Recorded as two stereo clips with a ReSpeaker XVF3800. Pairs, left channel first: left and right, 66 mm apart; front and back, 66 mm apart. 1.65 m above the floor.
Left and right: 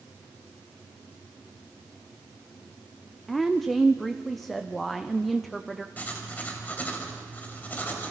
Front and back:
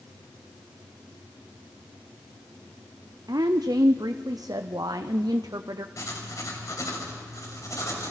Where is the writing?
25° left, 3.5 m.